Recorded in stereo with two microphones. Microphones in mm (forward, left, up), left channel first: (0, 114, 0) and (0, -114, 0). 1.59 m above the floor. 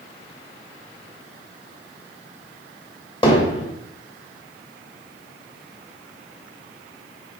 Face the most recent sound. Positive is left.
turn(degrees=20)  # may be behind; listen again after turning